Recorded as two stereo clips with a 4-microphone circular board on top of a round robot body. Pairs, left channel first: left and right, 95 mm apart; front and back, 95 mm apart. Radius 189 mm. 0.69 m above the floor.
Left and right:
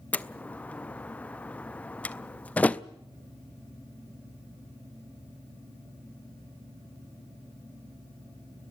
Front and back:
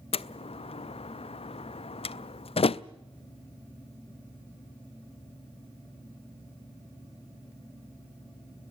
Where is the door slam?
15° left, 0.5 m.